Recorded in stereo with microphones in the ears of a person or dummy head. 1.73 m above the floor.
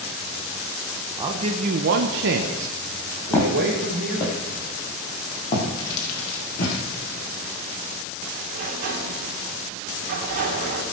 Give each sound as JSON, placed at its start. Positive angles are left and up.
{"t": 1.2, "sound": "a man speaking", "side_deg": -20, "distance_m": 1.1}
{"t": 3.3, "sound": "footsteps", "side_deg": 10, "distance_m": 3.5}
{"t": 5.8, "sound": "crumpling", "side_deg": 55, "distance_m": 5.0}
{"t": 8.5, "sound": "a sliding door", "side_deg": -50, "distance_m": 2.5}